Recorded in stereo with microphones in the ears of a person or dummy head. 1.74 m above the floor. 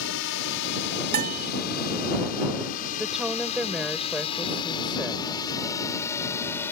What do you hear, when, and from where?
0.0 s a drone: 75° left (ahead or behind); by 6.7 s 10° left (ahead or behind)
1.1 s a bell: 50° right (ahead or behind)
3.0 s a woman speaking: 5° right (ahead or behind)